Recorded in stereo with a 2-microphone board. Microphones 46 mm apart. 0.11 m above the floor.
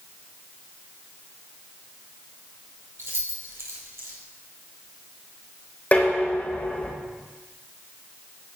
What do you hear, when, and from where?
3.0 s keys jangling: 65° right (ahead or behind), 2 m
5.9 s dishes clattering: 35° left (ahead or behind), 3.5 m